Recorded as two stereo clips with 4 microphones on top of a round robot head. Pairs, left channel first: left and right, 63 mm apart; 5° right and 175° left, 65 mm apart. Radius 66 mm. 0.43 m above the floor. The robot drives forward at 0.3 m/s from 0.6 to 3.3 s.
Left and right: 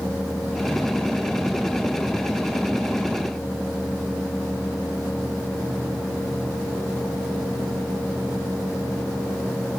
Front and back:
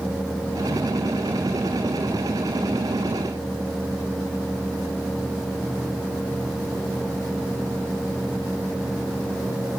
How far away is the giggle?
I don't hear a giggle.